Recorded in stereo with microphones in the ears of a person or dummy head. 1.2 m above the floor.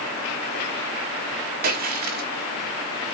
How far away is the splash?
About 1.0 m.